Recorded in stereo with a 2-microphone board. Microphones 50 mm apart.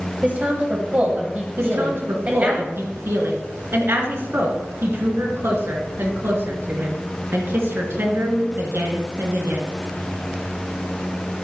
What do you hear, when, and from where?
0.2 s a woman speaking: 35° right (ahead or behind), 1.5 m
1.6 s a woman speaking: 55° right (ahead or behind), 3 m